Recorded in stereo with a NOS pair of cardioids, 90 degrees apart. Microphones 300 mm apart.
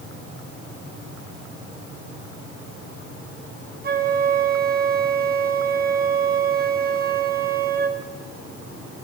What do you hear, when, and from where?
3.8 s a flute: 30° right, 2.5 m